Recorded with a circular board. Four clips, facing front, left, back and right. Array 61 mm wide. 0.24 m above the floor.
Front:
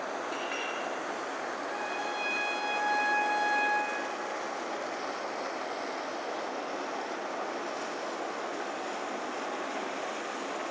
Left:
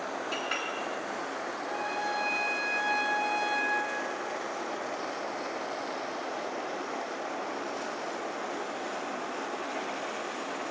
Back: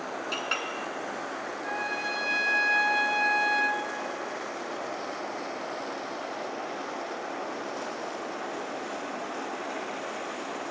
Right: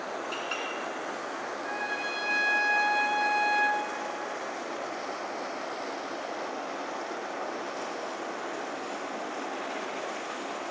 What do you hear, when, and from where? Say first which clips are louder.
0.3 s a clink: left 1 dB, back 3 dB; straight behind, 2 m
1.6 s a trumpet: left 1 dB, back 6 dB; 155° right, 1.9 m